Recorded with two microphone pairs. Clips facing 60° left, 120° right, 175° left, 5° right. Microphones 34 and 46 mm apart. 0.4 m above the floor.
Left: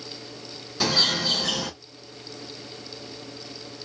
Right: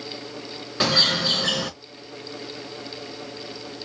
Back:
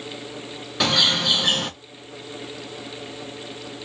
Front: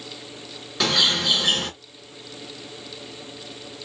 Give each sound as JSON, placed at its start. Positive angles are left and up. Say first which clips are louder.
{"t": 0.8, "sound": "a bird", "louder": "right 2 dB, back 1 dB", "azimuth_deg": -100, "distance_m": 1.6}